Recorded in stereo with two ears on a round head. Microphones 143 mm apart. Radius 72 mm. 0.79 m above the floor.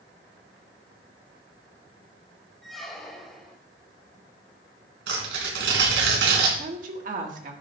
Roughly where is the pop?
I don't hear a pop.